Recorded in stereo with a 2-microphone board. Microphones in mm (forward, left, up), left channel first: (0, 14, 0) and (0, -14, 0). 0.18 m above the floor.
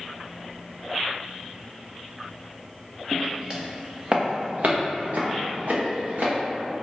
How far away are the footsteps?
About 0.9 m.